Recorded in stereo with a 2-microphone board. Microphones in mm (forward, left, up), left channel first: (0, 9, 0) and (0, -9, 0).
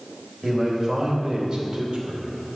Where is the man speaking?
35° right (ahead or behind), 3 m; by 2.5 s 75° right (ahead or behind), 2 m.